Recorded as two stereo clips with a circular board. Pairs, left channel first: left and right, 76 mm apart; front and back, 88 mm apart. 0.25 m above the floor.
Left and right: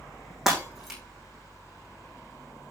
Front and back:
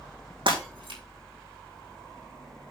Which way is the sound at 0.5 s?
175° right.